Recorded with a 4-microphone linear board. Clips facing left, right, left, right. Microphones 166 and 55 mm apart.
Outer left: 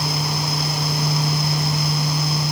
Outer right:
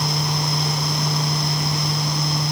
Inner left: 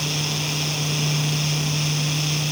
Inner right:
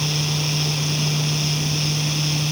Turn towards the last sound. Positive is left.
No sound to turn to.